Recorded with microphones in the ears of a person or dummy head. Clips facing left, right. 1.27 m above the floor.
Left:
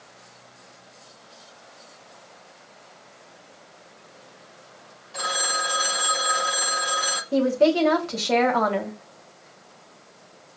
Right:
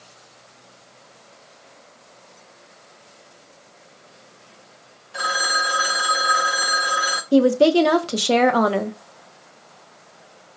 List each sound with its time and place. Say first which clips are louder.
5.1 s a phone ringing: right 3 dB; 15° right (ahead or behind), 0.5 m
7.3 s a woman speaking: right 5 dB; 50° right (ahead or behind), 0.8 m